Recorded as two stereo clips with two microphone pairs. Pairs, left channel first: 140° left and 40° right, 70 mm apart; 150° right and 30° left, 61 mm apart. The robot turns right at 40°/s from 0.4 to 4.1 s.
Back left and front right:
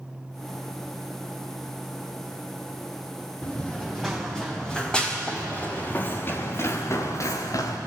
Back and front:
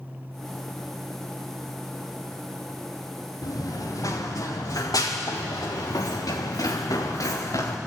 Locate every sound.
3.4 s running footsteps: 155° right, 4 m; by 7.8 s 175° left, 3 m